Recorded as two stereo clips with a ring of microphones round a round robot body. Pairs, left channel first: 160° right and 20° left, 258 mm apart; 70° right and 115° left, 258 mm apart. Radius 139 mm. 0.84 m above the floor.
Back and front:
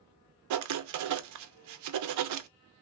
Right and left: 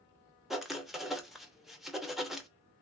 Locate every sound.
0.5 s writing: 25° left, 0.6 m